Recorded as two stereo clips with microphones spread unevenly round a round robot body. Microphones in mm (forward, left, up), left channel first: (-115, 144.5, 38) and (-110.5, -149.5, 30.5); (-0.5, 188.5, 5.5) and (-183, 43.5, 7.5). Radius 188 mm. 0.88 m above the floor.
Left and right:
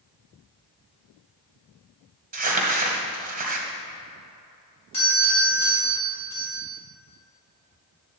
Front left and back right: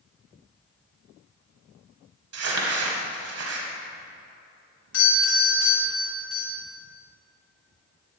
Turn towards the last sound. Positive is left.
turn(degrees=20)